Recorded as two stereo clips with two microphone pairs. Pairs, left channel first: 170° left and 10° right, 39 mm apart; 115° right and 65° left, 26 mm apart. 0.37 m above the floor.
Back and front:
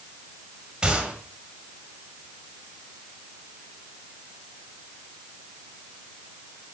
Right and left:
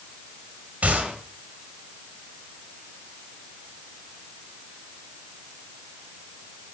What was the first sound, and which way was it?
A gunshot, 65° left.